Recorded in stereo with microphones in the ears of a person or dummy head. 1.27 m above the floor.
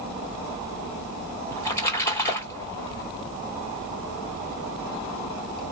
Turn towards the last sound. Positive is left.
turn(degrees=15)  # may be behind; listen again after turning